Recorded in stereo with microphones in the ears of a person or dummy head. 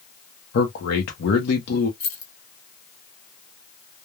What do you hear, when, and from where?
0.5 s a man speaking: 60° left (ahead or behind), 0.7 m
2.0 s keys jangling: 40° left (ahead or behind), 0.7 m